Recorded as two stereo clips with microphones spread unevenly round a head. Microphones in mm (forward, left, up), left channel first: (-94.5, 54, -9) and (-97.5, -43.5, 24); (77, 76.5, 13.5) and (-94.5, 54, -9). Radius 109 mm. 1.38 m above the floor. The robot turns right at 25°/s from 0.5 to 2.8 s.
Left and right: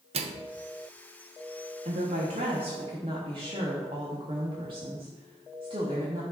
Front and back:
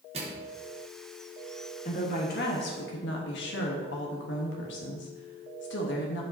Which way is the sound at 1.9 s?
50° right.